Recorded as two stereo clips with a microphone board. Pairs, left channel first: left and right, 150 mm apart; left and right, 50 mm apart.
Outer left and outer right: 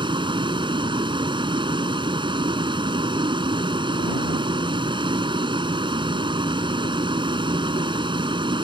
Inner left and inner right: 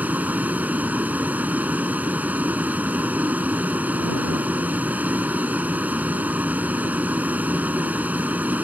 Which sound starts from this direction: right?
A vehicle, at 0.0 s.